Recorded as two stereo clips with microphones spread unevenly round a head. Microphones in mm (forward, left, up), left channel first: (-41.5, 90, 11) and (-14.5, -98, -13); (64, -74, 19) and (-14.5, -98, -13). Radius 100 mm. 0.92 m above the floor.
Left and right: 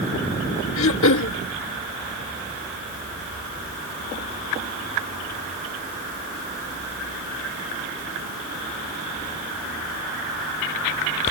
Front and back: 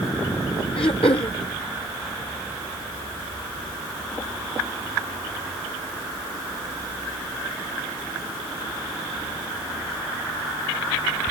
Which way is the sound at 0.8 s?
70° left.